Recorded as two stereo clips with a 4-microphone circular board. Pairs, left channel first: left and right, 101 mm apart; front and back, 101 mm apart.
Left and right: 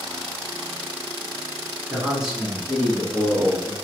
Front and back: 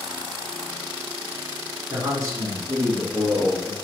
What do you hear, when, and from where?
1.9 s a man speaking: 155° right, 1.5 m; by 3.8 s 155° left, 2 m